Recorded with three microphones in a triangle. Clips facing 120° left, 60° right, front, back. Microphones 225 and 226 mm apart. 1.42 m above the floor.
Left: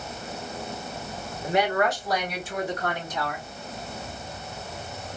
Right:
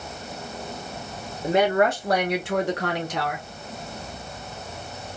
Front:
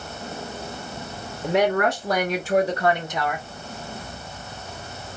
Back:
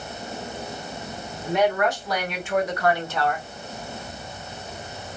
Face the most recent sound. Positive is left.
turn(degrees=-80)